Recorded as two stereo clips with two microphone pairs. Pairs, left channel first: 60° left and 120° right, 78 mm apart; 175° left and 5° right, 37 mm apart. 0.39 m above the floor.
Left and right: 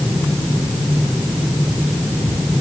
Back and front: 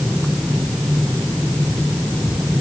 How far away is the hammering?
I don't hear hammering.